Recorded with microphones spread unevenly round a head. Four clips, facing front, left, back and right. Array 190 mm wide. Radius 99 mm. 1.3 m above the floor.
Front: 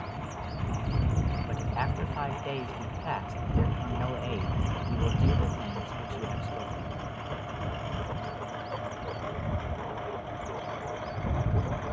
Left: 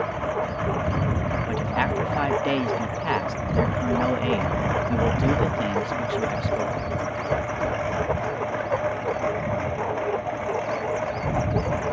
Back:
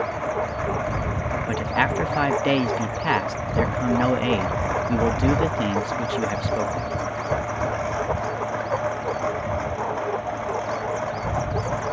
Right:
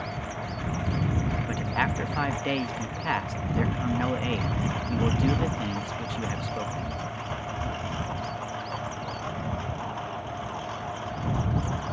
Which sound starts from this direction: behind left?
A lawn mower, at 0.0 s.